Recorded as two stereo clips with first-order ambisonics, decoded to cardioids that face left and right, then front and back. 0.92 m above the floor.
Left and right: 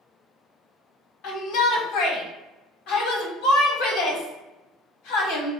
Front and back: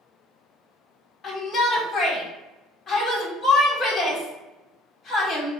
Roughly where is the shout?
Left.